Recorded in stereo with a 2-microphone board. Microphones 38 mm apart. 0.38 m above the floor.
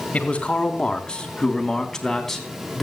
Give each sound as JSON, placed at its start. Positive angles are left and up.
{"t": 0.1, "sound": "a man speaking", "side_deg": 30, "distance_m": 3.5}